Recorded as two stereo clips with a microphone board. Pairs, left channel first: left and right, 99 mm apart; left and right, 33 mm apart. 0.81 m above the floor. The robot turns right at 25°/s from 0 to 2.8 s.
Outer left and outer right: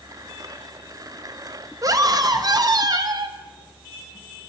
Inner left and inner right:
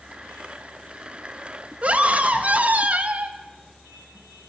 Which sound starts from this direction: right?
A scream, at 1.8 s.